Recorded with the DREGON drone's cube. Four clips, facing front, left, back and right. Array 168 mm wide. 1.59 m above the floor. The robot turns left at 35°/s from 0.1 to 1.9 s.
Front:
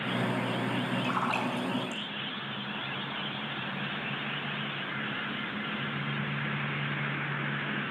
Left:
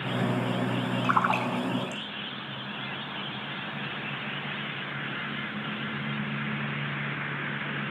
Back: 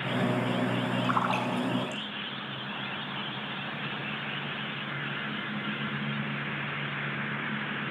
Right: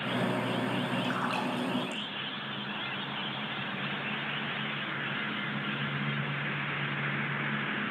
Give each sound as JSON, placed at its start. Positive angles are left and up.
{"t": 1.0, "sound": "a splash", "azimuth_deg": 110, "distance_m": 6.0}